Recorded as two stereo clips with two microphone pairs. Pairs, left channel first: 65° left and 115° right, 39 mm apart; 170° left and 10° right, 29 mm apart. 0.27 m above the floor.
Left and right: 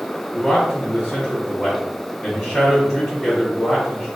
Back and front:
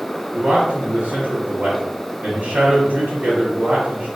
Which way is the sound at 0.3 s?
20° right.